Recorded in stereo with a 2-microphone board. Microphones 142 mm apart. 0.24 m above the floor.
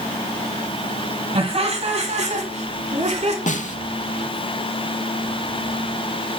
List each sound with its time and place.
1.4 s laughter: 40° right (ahead or behind), 1.9 m; by 3.4 s 50° right (ahead or behind), 2.5 m
3.5 s a snare drum: 60° left (ahead or behind), 0.7 m